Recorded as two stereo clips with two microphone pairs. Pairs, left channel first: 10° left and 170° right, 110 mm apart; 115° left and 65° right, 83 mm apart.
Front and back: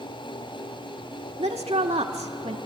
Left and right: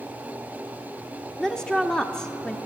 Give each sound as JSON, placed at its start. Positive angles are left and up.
{"t": 1.4, "sound": "a woman speaking", "azimuth_deg": -165, "distance_m": 1.5}